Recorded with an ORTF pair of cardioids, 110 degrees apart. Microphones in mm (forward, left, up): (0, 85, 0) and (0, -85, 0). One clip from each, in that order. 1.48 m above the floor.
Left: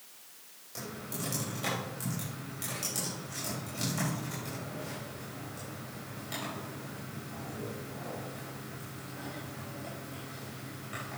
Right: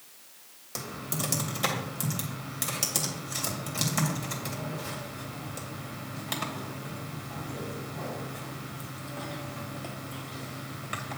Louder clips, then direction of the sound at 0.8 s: Right 5 dB; 55° right.